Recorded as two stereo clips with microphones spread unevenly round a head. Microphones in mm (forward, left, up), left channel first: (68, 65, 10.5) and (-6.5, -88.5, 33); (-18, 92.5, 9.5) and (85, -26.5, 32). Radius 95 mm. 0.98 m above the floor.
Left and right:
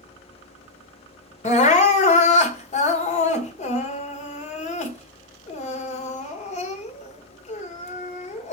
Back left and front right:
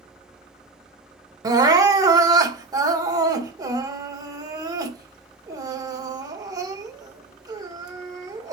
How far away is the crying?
About 1.6 m.